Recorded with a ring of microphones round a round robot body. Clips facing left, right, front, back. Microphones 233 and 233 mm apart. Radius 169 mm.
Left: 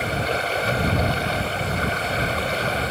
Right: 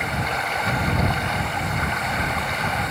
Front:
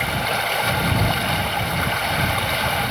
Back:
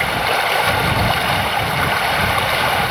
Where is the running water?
160° left.